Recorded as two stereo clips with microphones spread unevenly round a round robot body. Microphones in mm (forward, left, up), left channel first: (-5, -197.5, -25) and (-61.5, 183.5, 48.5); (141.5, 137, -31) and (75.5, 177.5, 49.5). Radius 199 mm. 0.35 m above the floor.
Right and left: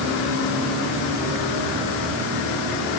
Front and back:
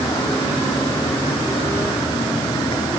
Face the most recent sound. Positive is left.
No sound to turn to.